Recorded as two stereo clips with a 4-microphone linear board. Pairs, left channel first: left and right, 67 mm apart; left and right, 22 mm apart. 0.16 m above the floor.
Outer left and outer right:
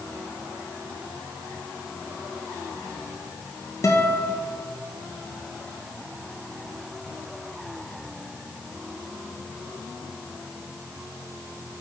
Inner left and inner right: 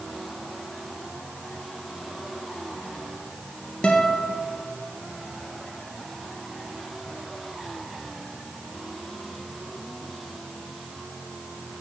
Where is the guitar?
45° left (ahead or behind), 1.7 m.